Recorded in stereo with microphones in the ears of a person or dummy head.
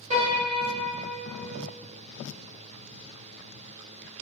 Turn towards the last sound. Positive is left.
turn(degrees=-30)  # may be behind; listen again after turning